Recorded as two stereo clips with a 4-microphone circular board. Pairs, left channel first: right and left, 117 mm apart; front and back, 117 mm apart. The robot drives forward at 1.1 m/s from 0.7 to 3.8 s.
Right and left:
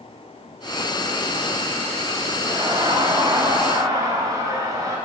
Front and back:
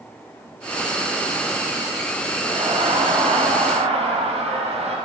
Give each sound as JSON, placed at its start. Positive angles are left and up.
{"t": 2.5, "sound": "laughter", "azimuth_deg": 145, "distance_m": 8.0}